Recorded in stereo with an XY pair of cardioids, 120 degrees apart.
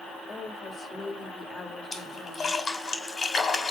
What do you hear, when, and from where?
0.3 s a woman speaking: 25° left, 2.5 m
1.9 s a splash: 30° left, 3 m